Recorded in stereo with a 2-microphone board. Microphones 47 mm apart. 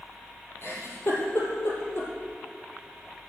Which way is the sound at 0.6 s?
60° left (ahead or behind).